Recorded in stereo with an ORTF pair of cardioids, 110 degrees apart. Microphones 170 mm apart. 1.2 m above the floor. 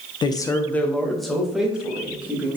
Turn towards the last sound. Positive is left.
turn(degrees=-10)